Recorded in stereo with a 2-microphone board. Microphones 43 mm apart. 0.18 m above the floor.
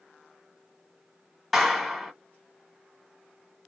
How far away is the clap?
About 0.9 m.